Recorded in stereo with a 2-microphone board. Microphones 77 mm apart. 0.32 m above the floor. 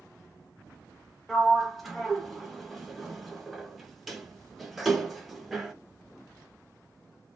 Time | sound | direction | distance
1.3 | a sliding door | centre (ahead or behind) | 0.5 m